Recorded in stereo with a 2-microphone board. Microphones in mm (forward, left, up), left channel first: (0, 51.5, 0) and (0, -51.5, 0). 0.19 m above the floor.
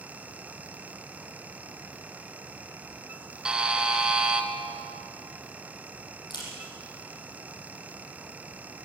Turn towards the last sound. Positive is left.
turn(degrees=45)  # may be behind; listen again after turning